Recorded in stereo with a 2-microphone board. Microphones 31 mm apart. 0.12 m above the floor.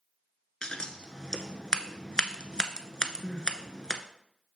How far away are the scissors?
About 0.5 m.